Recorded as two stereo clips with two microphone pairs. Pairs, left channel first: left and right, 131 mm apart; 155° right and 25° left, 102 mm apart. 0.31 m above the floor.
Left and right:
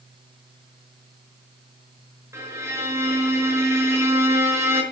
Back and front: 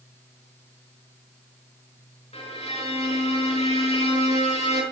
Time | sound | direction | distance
2.3 | a violin | 155° right | 5 m